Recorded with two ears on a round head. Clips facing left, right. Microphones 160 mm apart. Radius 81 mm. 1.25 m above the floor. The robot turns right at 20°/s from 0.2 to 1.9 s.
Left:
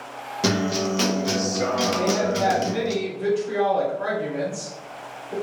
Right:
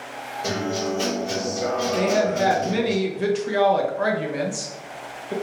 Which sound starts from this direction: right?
A woman speaking, at 1.9 s.